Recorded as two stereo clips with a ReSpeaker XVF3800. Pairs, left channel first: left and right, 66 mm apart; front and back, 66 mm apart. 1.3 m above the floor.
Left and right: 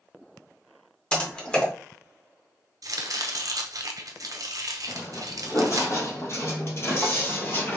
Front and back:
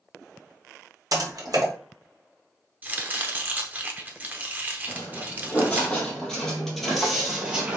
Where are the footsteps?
60° left, 2.5 m; by 7.8 s 120° left, 1.4 m.